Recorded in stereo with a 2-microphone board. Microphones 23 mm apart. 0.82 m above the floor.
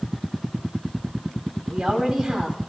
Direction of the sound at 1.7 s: 30° right (ahead or behind).